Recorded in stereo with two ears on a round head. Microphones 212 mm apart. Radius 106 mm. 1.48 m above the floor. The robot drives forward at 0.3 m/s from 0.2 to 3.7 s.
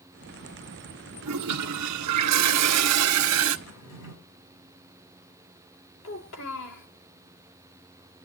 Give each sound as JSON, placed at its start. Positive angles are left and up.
{"t": 1.2, "sound": "a toilet flushing", "side_deg": -75, "distance_m": 0.9}
{"t": 3.7, "sound": "a drawer", "side_deg": 70, "distance_m": 7.0}
{"t": 6.0, "sound": "a child speaking", "side_deg": 70, "distance_m": 3.0}